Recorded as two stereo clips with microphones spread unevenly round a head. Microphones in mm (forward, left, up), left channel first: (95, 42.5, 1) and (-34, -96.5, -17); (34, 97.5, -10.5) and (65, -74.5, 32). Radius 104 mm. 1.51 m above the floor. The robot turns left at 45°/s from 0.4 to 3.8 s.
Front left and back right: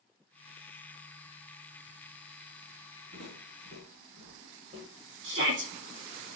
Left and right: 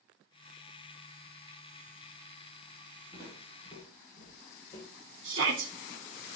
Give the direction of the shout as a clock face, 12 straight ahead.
4 o'clock.